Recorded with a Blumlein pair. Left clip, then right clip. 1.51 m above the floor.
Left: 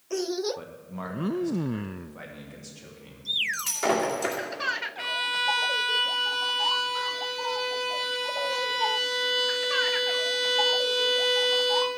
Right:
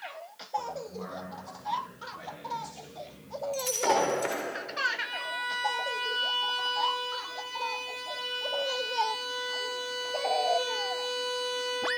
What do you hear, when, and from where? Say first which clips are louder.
0.6 s a man speaking: right 4 dB; 60° left, 1.8 m; by 3.4 s 10° left, 2.5 m
3.5 s breaking glass: even; 20° left, 2.5 m
5.0 s a violin: left 6 dB; 45° left, 1.0 m